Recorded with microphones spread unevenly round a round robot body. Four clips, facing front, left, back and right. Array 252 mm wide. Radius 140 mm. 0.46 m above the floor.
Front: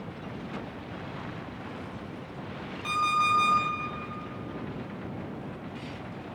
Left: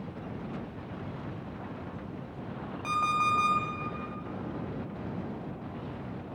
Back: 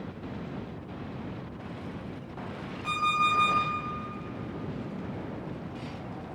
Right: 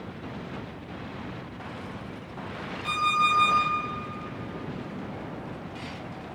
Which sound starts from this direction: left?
An alarm clock, at 2.8 s.